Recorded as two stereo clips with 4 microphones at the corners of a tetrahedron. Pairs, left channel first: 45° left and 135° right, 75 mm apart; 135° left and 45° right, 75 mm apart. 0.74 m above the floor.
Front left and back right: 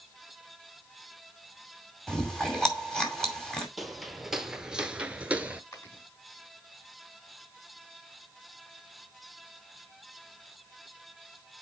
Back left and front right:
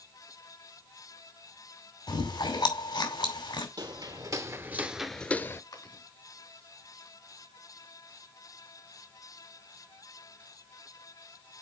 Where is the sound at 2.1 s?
125° left, 2.5 m.